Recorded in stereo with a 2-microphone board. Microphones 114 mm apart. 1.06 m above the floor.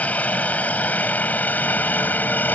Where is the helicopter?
10° left (ahead or behind); by 2.5 s 15° left (ahead or behind).